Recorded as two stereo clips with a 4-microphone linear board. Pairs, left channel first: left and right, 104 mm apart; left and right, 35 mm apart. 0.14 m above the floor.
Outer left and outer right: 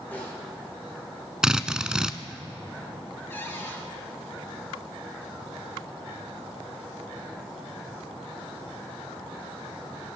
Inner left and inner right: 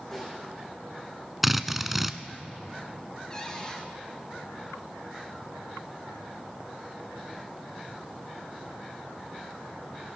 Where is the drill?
5° right (ahead or behind), 0.6 m.